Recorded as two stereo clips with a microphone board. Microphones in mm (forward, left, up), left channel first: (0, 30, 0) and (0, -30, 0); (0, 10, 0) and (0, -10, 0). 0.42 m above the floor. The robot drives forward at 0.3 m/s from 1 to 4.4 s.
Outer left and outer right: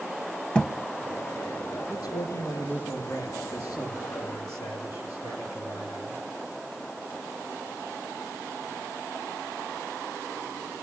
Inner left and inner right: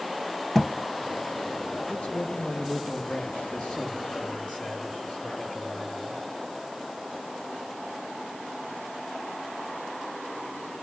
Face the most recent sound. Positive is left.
turn(degrees=80)